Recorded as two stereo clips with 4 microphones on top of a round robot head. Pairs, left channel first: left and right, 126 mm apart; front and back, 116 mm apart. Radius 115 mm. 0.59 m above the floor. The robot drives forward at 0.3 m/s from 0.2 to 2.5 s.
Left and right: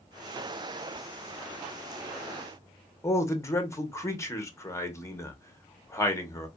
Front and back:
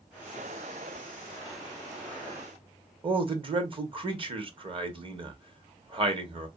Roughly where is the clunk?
No clunk in this recording.